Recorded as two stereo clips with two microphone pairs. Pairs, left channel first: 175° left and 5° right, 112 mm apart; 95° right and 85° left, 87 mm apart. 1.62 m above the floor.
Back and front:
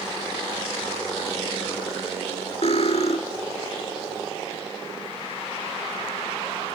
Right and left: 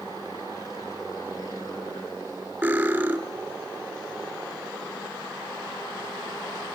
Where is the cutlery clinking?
150° left, 2.5 m.